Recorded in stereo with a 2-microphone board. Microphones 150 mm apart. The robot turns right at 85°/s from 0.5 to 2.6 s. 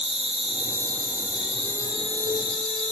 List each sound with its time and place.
0.0 s an insect: 125° right, 1.3 m; by 2.9 s 50° left, 1.3 m